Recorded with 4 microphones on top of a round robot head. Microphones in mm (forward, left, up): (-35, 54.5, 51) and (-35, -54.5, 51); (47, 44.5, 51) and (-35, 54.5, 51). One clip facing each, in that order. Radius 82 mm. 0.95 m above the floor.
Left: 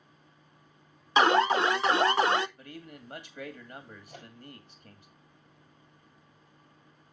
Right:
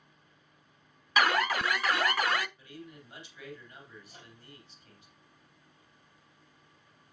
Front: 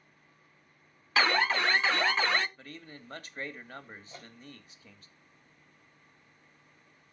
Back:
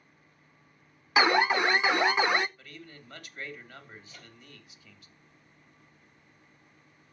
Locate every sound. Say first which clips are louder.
1.2 s an alarm: left 5 dB, back 4 dB; 115° left, 0.6 m
2.6 s a man speaking: left 2 dB, front 1 dB; 50° left, 2.5 m
4.1 s a microwave: left 5 dB, front 3 dB; 55° left, 5 m